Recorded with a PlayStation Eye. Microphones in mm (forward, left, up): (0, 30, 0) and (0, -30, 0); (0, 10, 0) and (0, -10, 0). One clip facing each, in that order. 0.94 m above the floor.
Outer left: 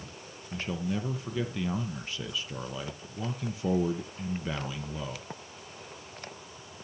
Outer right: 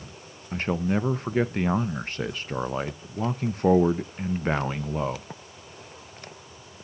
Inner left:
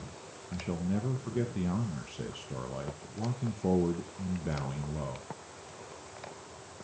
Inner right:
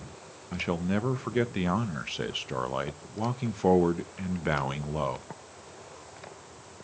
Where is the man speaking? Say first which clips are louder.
Outer right 7 dB, inner right 5 dB; 55° right (ahead or behind), 0.5 m.